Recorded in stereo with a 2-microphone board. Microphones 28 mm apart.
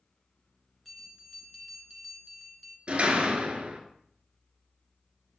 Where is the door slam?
45° right (ahead or behind), 1.7 m.